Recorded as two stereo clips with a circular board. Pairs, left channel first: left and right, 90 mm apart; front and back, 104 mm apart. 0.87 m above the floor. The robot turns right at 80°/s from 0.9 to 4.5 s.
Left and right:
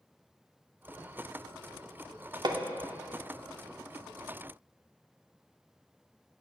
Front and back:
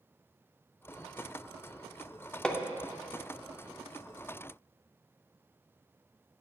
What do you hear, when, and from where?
2.4 s hammering: 85° right, 0.5 m; by 2.6 s 70° right, 0.5 m